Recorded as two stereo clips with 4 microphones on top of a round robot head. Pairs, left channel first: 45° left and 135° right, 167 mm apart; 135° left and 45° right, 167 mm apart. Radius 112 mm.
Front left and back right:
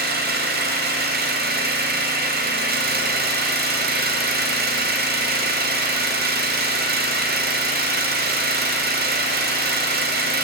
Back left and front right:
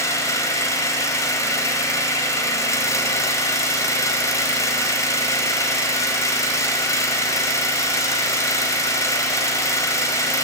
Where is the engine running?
155° right, 2.5 m.